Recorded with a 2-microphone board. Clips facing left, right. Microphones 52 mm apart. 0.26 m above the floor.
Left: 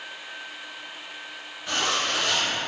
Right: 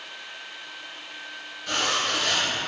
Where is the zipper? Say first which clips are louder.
Even; 25° left (ahead or behind), 1.8 m.